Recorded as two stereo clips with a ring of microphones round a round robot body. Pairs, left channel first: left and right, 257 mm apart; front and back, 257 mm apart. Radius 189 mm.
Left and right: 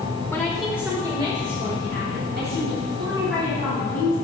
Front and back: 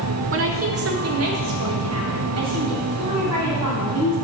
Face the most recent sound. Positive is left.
turn(degrees=-145)